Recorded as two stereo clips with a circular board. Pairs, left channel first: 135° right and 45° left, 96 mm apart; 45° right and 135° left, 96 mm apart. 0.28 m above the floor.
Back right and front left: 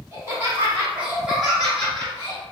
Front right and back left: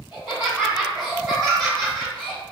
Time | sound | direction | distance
0.1 | laughter | 65° left | 1.8 m